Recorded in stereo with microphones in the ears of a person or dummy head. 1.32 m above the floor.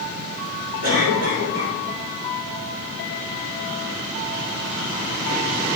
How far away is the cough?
About 3 m.